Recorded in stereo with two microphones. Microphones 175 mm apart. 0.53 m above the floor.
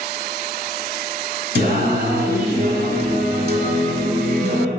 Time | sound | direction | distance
1.6 | singing | 70° right (ahead or behind) | 2.5 m